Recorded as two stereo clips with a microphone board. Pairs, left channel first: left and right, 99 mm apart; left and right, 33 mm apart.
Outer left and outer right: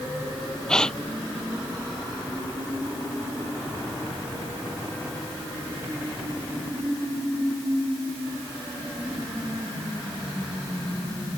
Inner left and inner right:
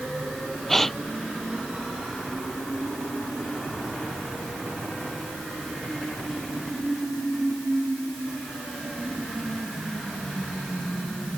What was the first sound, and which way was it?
A gasp, 5° left (ahead or behind).